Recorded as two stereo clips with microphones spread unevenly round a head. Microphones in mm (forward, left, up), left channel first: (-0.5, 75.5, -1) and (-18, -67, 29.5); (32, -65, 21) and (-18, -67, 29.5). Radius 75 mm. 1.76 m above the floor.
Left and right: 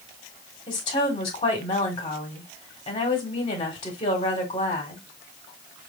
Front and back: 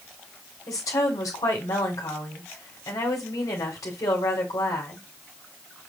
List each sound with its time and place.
0.7 s a woman speaking: 20° left, 1.9 m